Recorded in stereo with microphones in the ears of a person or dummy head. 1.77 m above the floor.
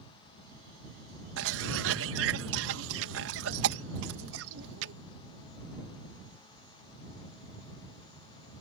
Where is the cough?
75° right (ahead or behind).